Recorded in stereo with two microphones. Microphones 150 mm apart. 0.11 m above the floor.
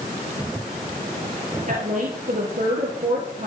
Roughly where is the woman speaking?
Right.